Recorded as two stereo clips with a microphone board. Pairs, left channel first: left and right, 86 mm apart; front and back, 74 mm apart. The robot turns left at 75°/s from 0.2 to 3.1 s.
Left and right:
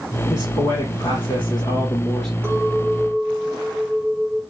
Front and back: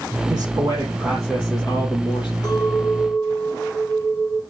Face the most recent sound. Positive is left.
turn(degrees=-75)